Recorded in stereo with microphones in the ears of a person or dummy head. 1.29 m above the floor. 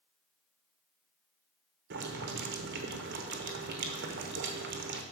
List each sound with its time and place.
1.9 s boiling: 55° right (ahead or behind), 0.9 m